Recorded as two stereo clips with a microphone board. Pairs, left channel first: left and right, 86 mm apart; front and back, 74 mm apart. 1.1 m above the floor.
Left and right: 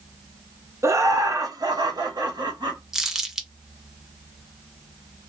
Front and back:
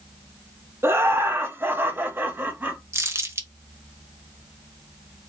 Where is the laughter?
135° right, 1.0 m; by 2.8 s 115° right, 2.0 m.